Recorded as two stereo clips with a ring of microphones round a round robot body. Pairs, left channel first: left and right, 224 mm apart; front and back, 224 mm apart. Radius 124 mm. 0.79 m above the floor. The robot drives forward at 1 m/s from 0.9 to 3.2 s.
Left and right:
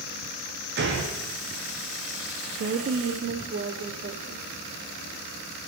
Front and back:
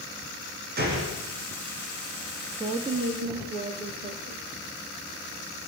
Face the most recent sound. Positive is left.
turn(degrees=-135)